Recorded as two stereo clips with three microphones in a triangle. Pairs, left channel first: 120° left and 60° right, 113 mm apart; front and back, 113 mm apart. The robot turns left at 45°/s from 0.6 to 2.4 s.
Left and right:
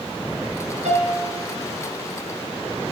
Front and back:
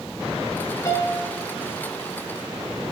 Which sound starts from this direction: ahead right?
A piano, at 0.8 s.